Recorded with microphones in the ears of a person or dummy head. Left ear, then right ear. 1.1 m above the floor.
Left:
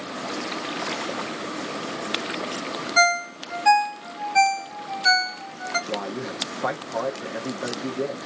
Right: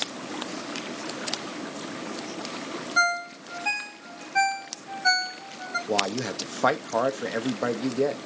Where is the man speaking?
70° right (ahead or behind), 1.0 m.